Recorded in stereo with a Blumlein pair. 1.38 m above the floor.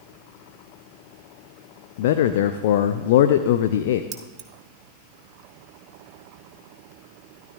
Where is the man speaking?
55° left, 0.6 m.